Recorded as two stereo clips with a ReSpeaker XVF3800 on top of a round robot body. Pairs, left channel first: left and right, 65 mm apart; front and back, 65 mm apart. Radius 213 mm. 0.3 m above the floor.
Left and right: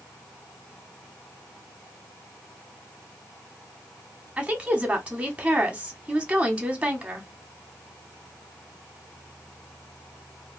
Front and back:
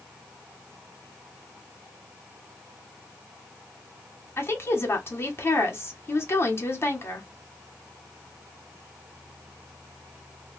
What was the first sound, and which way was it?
A woman speaking, 25° right.